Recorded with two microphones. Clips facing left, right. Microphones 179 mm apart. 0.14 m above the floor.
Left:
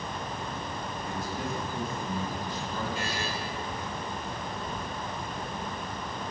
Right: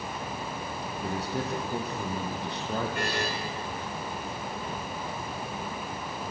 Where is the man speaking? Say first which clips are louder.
Right 4 dB; 75° right (ahead or behind), 6 m; by 3.5 s 65° right (ahead or behind), 5 m.